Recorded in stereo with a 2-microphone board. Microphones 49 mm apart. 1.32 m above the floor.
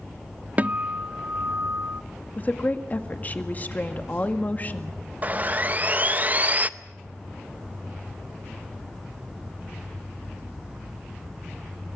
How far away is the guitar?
About 0.5 m.